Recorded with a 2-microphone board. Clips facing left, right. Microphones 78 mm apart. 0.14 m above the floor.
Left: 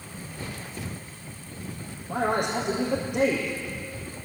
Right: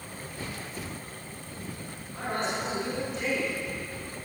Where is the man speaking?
70° left (ahead or behind), 6 m.